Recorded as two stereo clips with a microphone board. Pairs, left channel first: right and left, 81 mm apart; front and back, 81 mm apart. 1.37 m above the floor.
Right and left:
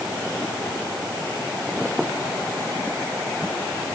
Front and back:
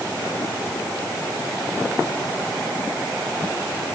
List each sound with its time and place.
Only background noise.